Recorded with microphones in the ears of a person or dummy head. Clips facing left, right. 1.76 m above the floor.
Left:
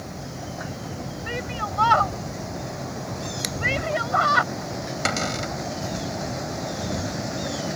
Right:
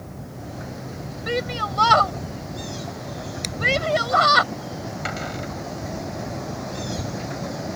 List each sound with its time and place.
1.3 s a shout: 40° right (ahead or behind)
3.4 s scissors: 20° left (ahead or behind)
5.0 s a cupboard door: 65° left (ahead or behind)